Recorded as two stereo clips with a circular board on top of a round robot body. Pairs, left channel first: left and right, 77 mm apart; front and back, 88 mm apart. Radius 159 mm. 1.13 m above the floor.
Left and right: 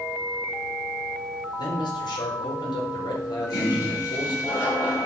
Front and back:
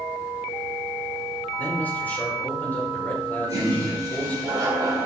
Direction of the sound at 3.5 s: 135° left.